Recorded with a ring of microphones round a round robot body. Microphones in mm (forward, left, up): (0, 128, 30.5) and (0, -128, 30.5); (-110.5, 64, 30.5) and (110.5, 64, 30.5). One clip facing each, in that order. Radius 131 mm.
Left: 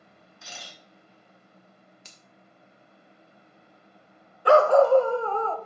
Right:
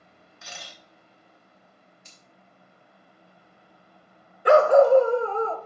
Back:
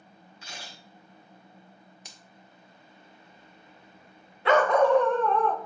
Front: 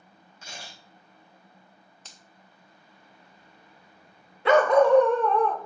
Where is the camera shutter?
55° right, 3.5 m.